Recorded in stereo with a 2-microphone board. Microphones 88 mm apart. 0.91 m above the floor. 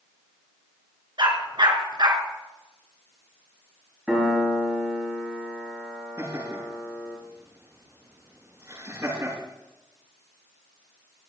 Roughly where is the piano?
Centre.